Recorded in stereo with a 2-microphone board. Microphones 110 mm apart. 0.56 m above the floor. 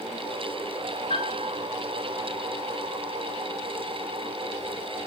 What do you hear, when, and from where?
1.1 s a piano: 80° left, 3 m